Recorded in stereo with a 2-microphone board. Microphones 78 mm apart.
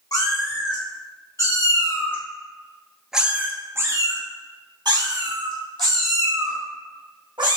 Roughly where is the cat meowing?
Left.